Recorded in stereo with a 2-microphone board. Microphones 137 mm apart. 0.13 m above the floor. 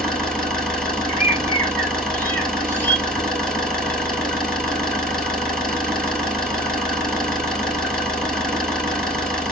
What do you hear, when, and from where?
0.0 s an engine running: 5° left (ahead or behind), 1.2 m
1.1 s a bird: 15° left (ahead or behind), 1.5 m